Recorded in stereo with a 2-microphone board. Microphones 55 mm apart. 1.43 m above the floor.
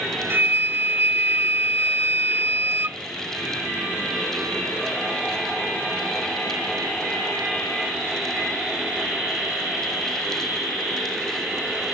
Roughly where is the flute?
Right.